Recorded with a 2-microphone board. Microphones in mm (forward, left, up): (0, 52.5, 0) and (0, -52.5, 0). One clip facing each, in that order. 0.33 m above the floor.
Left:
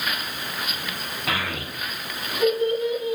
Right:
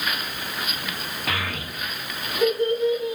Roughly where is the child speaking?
Centre.